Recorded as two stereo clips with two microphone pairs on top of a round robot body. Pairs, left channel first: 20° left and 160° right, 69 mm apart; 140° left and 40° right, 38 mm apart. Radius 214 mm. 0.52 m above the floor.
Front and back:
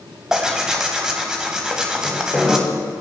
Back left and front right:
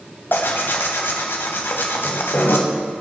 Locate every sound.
0.3 s tearing paper: 115° left, 1.0 m